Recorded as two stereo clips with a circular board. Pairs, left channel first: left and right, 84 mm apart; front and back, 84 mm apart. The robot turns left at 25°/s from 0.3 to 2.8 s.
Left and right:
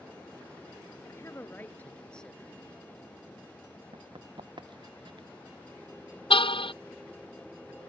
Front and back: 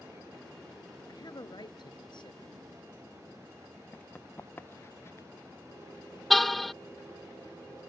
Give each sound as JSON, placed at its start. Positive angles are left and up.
{"t": 1.1, "sound": "a man speaking", "azimuth_deg": 35}
{"t": 3.9, "sound": "running footsteps", "azimuth_deg": -75}
{"t": 6.3, "sound": "a car horn", "azimuth_deg": 90}